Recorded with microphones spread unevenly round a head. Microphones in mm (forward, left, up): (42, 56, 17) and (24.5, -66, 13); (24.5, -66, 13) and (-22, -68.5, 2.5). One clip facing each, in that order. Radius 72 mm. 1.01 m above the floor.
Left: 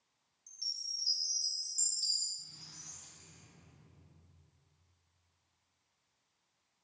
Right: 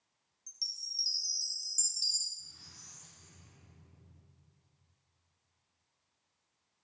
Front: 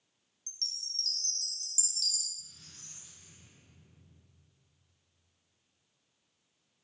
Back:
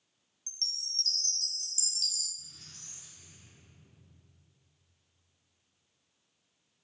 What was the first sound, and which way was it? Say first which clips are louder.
A chime: right 1 dB, back 2 dB; 155° right.